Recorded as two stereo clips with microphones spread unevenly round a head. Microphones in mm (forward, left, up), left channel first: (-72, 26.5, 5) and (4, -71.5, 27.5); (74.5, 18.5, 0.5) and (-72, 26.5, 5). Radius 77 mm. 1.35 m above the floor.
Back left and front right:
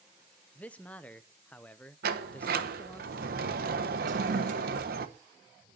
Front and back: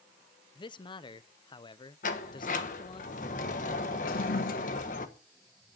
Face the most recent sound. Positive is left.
turn(degrees=-20)